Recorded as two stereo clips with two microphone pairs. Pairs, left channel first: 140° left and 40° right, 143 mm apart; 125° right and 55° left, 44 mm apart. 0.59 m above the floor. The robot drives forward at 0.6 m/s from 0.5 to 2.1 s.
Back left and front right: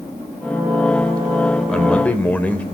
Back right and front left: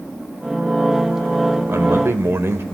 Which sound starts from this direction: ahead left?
A man speaking, at 1.7 s.